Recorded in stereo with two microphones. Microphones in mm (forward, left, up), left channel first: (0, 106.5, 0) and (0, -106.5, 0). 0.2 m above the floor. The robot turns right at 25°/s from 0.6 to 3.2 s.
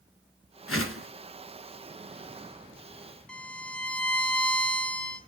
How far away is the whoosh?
About 0.5 m.